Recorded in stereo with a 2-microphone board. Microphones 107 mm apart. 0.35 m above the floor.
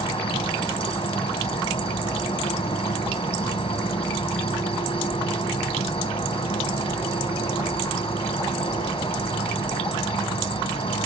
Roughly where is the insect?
Left.